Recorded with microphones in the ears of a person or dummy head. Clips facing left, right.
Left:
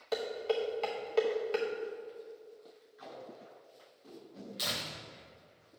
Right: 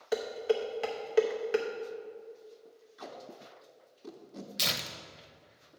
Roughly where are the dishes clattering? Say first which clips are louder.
Right 3 dB; centre.